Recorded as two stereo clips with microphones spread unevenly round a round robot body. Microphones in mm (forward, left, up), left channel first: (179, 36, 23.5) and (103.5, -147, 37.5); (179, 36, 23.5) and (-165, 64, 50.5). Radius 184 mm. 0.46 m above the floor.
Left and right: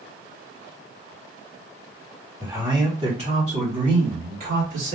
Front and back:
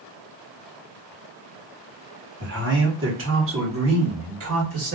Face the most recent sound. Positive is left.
turn(degrees=-135)